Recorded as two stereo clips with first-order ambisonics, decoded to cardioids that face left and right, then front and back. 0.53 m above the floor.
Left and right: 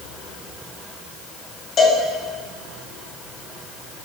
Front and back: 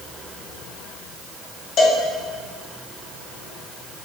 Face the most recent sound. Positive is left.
turn(degrees=35)